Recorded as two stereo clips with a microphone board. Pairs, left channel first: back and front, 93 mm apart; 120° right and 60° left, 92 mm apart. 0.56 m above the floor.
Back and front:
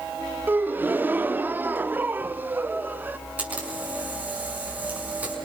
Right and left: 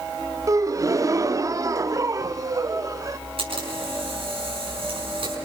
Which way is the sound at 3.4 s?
75° left.